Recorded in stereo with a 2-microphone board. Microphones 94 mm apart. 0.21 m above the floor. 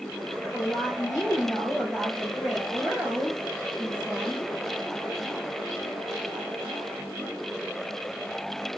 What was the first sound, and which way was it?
A woman speaking, 10° left (ahead or behind).